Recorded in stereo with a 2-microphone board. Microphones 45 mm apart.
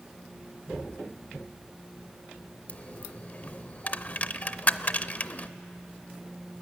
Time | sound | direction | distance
2.7 | a dropped coin | 35° left (ahead or behind) | 0.6 m